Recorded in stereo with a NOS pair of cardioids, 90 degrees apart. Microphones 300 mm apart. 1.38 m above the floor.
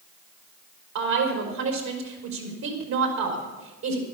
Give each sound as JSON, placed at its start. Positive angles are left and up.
{"t": 0.9, "sound": "a woman speaking", "azimuth_deg": -65, "distance_m": 4.5}